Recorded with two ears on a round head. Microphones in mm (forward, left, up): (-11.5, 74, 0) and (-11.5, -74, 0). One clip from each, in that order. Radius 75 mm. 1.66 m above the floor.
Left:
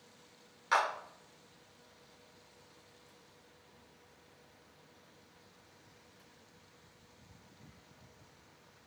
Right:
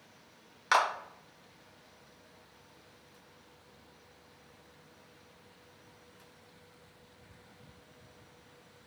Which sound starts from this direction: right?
A clap, at 0.7 s.